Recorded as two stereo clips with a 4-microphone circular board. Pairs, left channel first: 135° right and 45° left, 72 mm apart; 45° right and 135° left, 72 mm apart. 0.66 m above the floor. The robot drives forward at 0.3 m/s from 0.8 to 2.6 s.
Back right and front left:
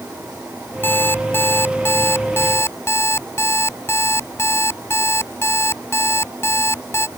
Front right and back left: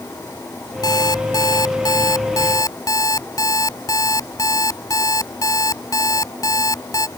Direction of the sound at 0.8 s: 75° right.